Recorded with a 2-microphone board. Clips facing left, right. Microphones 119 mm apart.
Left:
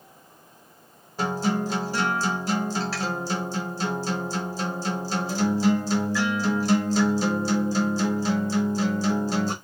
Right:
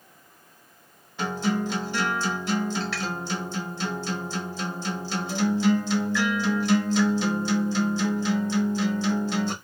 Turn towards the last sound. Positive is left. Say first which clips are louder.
# left 1 dB
turn(degrees=40)  # may be behind; listen again after turning